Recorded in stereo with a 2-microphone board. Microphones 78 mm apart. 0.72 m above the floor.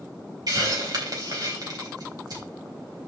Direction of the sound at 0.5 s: 60° right (ahead or behind).